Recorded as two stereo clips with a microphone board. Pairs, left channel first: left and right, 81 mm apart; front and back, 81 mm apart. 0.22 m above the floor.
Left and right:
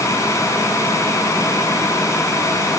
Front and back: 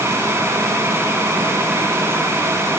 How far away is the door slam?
I don't hear a door slam.